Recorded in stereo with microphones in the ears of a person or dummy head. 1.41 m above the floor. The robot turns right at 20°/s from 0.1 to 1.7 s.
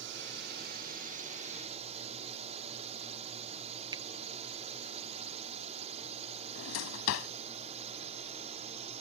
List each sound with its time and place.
0.0 s a drone: 70° right; by 9.0 s 35° right
3.9 s a finger snap: 25° right (ahead or behind)
6.5 s a drawer: 80° left